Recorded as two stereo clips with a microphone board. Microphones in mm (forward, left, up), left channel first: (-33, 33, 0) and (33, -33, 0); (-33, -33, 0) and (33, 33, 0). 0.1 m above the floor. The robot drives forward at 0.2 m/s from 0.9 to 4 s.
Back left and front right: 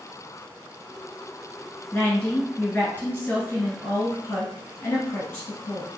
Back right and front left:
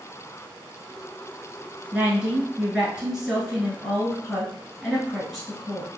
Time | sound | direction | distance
1.9 | a woman speaking | 95° left | 1.3 m